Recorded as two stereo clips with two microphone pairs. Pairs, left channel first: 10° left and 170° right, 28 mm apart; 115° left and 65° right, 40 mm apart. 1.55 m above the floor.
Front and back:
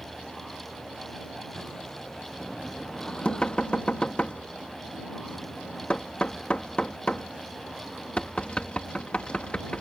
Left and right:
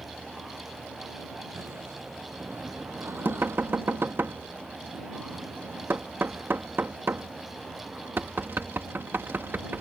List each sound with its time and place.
0.0 s a vehicle: 60° right; by 9.8 s 65° right
2.4 s knocking: 40° right